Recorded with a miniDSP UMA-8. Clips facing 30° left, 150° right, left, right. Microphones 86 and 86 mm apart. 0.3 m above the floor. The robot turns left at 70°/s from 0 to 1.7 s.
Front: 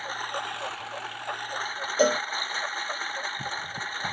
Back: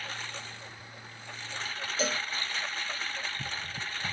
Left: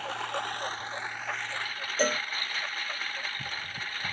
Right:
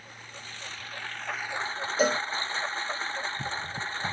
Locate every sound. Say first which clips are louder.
0.0 s a lawn mower: front 8 dB, left 14 dB; 90° left; by 4.1 s 30° right
2.0 s a cowbell: front 10 dB, right 3 dB; 10° right